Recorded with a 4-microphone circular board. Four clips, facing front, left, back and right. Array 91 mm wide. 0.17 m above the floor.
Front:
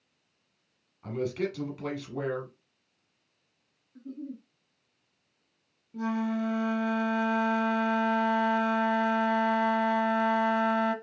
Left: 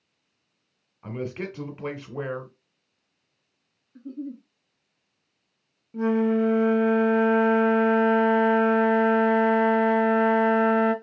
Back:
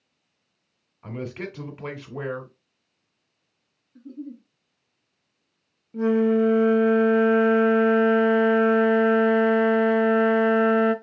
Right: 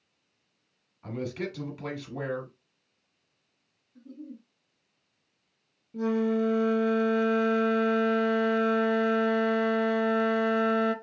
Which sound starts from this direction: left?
A giggle, at 4.0 s.